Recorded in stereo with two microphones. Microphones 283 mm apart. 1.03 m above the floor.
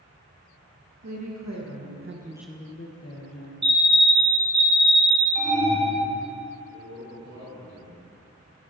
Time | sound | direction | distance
1.0 | a woman speaking | 75° right (ahead or behind) | 1.9 m
3.6 | a fire alarm | 40° right (ahead or behind) | 1.9 m
5.3 | an alarm | 65° right (ahead or behind) | 2.5 m
6.7 | a man speaking | 70° right (ahead or behind) | 2.5 m